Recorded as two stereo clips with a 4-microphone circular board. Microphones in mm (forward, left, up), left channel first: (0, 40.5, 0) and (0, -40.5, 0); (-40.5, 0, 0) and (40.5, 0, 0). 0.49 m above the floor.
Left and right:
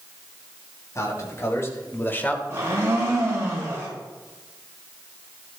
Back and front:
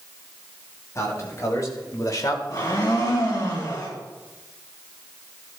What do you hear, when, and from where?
0.9 s a man speaking: 135° left, 3 m; by 2.4 s 160° left, 1.3 m
2.5 s a blender: 145° right, 4.5 m